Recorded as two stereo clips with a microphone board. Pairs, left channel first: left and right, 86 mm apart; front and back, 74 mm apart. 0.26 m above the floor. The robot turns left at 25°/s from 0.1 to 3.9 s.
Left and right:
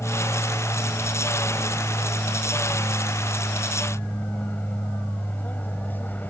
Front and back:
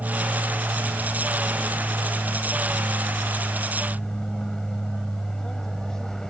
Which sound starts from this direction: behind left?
An aircraft, at 0.0 s.